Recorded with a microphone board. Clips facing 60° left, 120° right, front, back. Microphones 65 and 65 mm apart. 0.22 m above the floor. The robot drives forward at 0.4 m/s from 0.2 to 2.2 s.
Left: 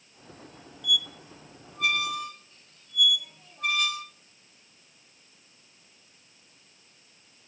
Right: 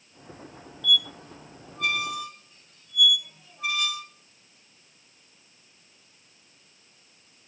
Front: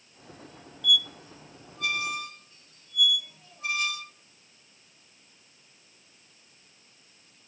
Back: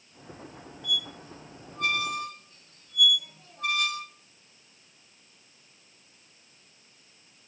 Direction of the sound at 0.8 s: 130° left.